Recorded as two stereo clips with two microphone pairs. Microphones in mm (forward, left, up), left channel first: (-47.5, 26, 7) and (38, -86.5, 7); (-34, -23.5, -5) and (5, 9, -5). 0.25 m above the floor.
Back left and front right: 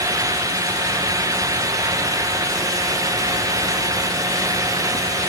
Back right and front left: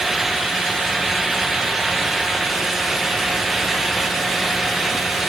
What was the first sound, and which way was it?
Only background noise.